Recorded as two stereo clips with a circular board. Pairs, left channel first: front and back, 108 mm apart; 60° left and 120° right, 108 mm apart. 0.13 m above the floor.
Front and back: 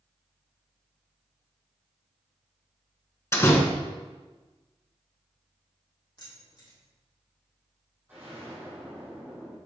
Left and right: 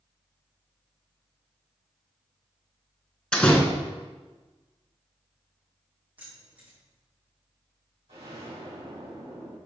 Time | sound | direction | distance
3.3 | a door slam | 10° right | 1.3 m
6.2 | keys jangling | 45° right | 3.5 m
8.1 | an explosion | 110° right | 3 m